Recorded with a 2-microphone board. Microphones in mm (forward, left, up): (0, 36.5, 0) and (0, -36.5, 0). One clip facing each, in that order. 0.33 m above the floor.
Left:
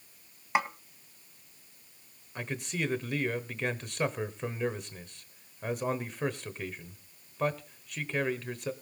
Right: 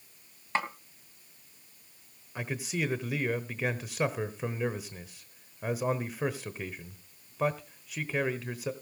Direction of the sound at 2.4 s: 5° right (ahead or behind).